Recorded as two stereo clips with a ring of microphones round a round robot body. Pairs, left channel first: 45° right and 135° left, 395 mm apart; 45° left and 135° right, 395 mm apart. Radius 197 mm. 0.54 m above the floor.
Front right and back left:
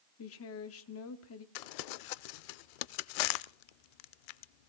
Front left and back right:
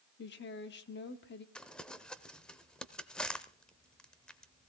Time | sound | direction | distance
0.2 | a woman speaking | 5° right | 0.8 m
1.6 | crumpling | 45° right | 0.5 m